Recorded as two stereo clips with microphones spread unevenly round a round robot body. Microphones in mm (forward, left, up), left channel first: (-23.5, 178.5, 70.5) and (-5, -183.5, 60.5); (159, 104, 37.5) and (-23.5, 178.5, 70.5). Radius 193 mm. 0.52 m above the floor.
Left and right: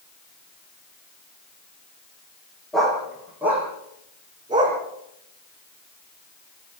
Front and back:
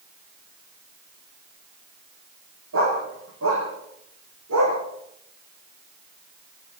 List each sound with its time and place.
2.7 s a dog barking: straight behind, 9 m; by 4.8 s 165° right, 11 m